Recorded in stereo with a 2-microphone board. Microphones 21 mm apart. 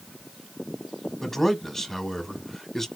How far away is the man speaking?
About 1.1 m.